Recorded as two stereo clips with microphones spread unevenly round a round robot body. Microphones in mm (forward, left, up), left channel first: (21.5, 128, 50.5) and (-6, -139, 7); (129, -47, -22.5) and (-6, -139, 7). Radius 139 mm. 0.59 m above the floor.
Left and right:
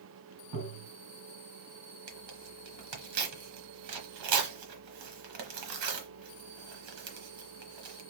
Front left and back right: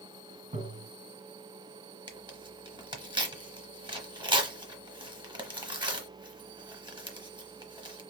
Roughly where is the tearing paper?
Right.